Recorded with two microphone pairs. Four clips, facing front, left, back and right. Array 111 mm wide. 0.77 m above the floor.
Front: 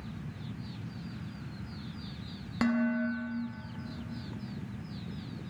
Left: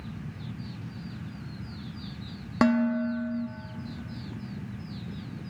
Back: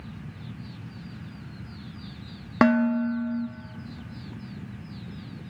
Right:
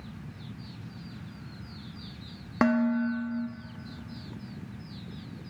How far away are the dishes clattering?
About 0.6 m.